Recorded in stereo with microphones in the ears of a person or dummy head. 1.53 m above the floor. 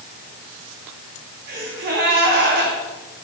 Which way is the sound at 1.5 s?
45° right (ahead or behind).